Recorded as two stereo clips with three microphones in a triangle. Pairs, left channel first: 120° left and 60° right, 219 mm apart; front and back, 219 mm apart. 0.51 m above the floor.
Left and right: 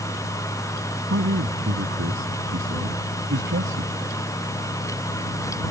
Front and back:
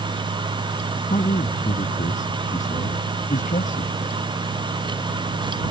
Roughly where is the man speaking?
Ahead right.